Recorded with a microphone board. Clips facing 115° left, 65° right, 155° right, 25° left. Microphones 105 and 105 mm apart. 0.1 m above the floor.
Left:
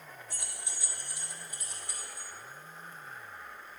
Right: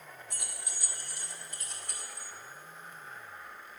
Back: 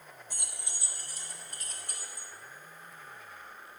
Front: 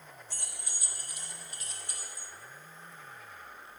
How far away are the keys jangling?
About 1.3 m.